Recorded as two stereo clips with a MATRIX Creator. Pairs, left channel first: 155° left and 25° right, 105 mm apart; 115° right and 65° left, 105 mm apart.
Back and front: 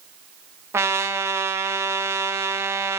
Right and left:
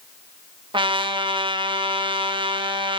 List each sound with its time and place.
0.7 s a trumpet: 40° left, 0.5 m